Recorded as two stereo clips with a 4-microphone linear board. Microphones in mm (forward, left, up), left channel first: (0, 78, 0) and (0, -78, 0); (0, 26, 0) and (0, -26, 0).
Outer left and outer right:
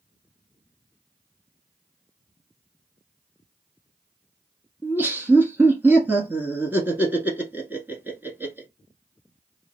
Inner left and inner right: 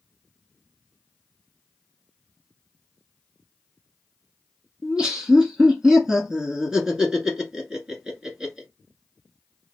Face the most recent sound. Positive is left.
turn(degrees=-10)  # may be behind; listen again after turning